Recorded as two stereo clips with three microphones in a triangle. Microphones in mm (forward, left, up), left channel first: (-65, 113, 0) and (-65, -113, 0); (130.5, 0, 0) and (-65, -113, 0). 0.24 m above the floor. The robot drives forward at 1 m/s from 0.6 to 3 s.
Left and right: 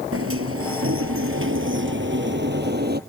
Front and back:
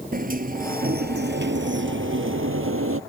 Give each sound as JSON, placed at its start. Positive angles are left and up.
{"t": 0.1, "sound": "a sliding door", "azimuth_deg": -100}